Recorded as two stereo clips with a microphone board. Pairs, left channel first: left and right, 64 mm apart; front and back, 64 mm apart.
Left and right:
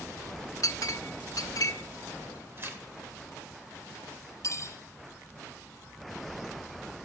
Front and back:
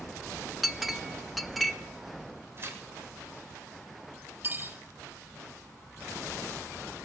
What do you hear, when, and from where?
0.6 s a clink: 90° left, 0.5 m
2.6 s tearing paper: 140° right, 1.3 m
4.4 s cutlery clinking: 125° left, 1.9 m